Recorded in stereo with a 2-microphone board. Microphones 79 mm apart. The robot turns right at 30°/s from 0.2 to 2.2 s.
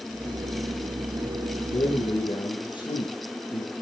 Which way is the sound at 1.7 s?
70° left (ahead or behind).